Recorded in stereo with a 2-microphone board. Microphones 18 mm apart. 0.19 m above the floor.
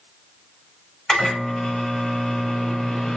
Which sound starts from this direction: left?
A microwave, at 1.1 s.